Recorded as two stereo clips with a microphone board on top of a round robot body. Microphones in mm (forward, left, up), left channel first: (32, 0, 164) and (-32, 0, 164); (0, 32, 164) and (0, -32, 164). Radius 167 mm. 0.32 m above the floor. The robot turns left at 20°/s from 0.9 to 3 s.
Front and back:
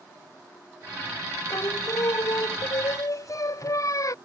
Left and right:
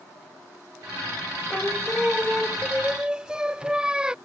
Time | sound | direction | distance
1.5 | singing | 15° left | ?